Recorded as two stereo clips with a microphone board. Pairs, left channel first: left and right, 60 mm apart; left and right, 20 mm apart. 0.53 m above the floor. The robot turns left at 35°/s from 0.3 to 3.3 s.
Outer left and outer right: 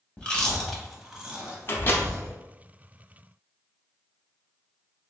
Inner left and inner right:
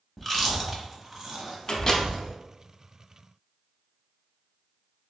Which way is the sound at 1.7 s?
40° left (ahead or behind).